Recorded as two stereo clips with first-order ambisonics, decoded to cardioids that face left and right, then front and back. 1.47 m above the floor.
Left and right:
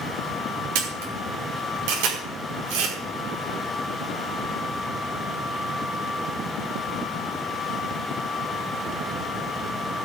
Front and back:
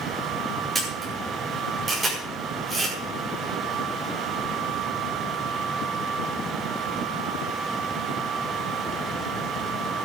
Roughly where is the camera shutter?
Right.